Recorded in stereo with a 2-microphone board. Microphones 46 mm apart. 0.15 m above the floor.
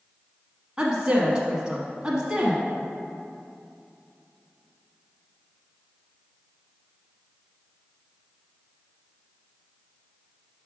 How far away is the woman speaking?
About 1.0 m.